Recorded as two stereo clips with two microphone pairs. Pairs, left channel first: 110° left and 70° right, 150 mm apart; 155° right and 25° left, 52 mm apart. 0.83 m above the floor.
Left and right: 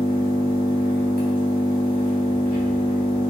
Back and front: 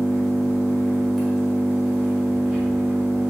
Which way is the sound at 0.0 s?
60° right.